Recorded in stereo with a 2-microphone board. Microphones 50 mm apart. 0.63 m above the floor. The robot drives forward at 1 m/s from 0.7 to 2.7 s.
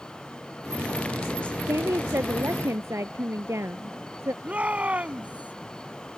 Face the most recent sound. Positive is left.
turn(degrees=-25)  # may be behind; listen again after turning